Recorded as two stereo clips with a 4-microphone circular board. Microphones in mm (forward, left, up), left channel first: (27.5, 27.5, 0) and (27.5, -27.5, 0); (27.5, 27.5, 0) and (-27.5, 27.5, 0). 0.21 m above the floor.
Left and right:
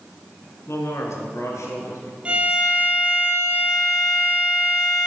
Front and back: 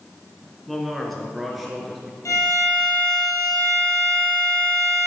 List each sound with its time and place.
0.7 s a man speaking: 85° left, 2 m; by 2.1 s 90° left, 3.5 m
2.2 s a violin: 25° right, 3 m